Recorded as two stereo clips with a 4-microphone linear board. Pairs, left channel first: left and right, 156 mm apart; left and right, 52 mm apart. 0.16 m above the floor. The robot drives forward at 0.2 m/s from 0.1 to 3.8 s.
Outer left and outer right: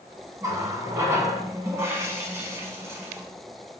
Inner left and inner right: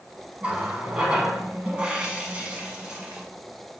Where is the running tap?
20° right (ahead or behind), 0.7 m; by 3.2 s 15° right (ahead or behind), 0.9 m.